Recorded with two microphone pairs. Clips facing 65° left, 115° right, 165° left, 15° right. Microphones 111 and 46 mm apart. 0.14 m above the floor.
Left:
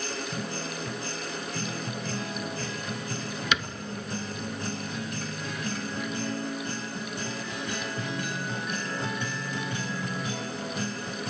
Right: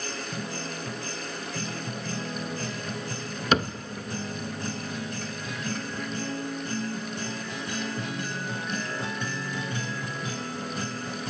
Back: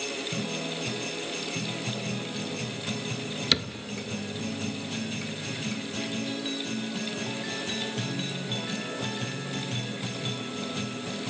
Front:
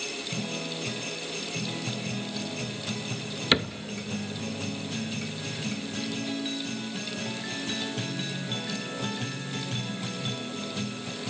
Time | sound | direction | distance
3.5 | a cupboard door | 75° right | 0.7 m